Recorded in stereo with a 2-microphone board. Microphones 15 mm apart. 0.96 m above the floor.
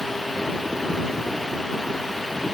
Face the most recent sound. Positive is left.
No sound to turn to.